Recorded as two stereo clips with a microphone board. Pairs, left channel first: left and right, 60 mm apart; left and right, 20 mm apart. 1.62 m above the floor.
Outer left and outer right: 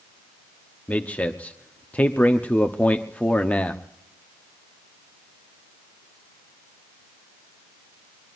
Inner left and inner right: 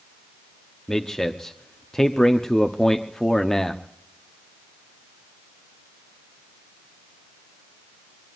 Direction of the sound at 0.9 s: 25° left (ahead or behind).